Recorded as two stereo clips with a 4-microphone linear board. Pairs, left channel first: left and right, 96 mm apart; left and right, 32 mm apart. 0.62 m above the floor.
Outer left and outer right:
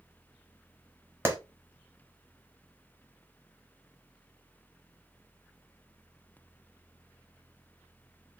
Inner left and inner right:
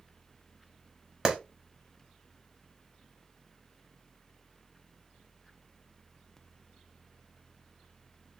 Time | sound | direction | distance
1.2 | a clap | 25° right (ahead or behind) | 1.0 m